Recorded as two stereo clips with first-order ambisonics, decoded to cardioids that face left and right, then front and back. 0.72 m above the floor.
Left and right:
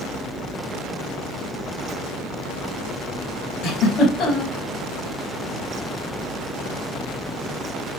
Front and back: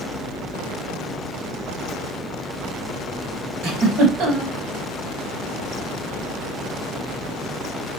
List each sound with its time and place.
3.6 s a giggle: 150° left, 4 m